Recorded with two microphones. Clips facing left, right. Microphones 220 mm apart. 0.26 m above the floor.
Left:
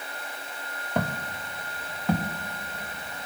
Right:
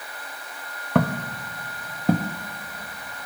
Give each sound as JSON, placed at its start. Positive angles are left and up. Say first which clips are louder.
{"t": 0.9, "sound": "footsteps", "louder": "right 7 dB", "side_deg": -85, "distance_m": 2.0}